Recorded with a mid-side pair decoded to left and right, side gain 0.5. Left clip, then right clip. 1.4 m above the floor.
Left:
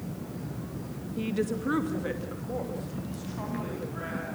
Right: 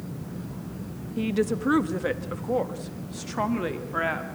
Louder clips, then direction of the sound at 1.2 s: Right 5 dB; 25° right.